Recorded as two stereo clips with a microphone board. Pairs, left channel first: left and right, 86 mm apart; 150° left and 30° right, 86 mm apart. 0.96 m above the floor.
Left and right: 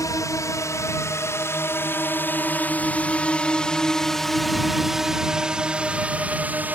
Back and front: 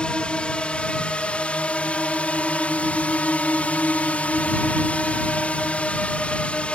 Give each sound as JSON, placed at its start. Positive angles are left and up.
{"t": 0.0, "sound": "a drone", "azimuth_deg": 80}